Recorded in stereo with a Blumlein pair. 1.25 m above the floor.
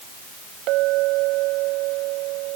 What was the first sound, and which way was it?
A clink, 40° right.